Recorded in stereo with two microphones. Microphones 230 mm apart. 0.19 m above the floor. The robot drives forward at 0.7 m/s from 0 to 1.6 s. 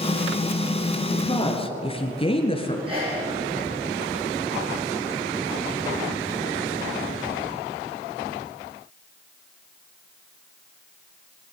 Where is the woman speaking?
20° left (ahead or behind), 3.5 m; by 2.8 s 25° left (ahead or behind), 3 m.